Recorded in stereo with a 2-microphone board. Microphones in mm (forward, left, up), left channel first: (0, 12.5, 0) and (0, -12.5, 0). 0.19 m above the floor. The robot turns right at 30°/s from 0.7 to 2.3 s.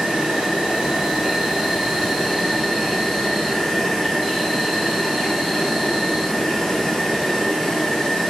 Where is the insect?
40° right, 0.8 m; by 8.3 s 10° left, 0.8 m.